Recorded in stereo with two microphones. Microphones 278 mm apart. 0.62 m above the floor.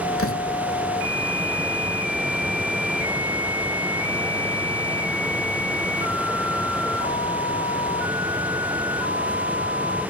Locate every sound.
0.2 s a door slam: 50° left (ahead or behind)